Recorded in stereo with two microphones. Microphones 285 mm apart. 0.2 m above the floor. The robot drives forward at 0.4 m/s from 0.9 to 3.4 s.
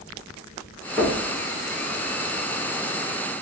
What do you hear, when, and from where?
1.0 s knocking: centre (ahead or behind), 3 m